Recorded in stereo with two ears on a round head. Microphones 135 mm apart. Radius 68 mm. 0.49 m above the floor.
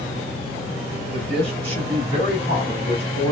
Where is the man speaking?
40° right (ahead or behind), 2.5 m; by 3.3 s 35° right (ahead or behind), 4 m.